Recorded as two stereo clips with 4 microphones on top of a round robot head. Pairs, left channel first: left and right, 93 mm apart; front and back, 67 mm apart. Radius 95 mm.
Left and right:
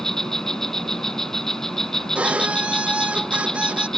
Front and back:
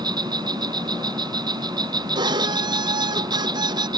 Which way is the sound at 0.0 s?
175° left.